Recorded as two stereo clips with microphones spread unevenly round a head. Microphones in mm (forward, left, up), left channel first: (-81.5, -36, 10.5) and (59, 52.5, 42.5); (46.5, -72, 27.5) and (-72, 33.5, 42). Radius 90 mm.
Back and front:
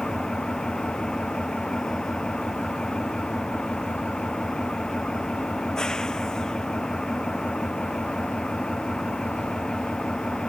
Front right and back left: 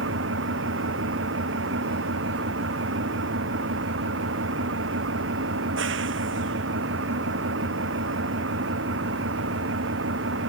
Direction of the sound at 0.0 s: 125° left.